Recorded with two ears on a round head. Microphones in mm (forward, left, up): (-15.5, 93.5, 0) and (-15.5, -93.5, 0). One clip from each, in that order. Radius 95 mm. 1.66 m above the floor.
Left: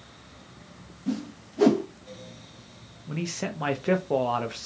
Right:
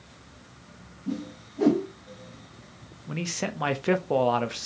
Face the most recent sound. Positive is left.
turn(degrees=-10)  # may be behind; listen again after turning